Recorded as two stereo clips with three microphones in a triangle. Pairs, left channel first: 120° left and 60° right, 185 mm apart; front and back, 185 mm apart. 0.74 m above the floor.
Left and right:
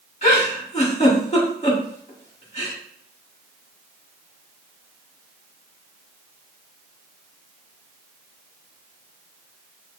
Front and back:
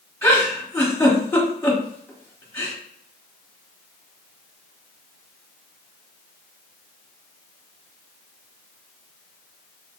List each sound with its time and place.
0.2 s a giggle: 75° left, 1.3 m